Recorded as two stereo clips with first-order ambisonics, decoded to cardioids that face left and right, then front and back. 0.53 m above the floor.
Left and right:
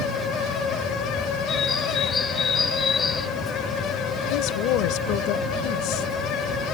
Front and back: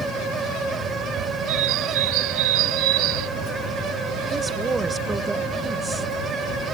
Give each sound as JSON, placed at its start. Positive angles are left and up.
{"t": 1.5, "sound": "a bird", "azimuth_deg": 160}
{"t": 4.3, "sound": "a woman speaking", "azimuth_deg": 105}